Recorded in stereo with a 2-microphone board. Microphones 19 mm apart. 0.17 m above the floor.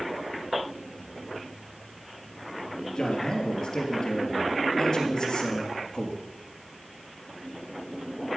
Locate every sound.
3.0 s a man speaking: 35° left (ahead or behind), 3.5 m